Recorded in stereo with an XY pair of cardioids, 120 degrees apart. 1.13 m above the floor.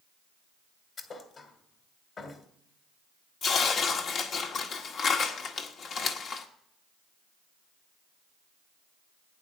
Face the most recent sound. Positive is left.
turn(degrees=55)